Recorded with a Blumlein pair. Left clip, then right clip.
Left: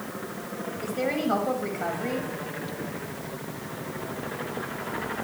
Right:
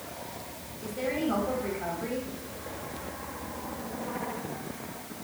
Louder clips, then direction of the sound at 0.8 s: Left 3 dB; 70° left.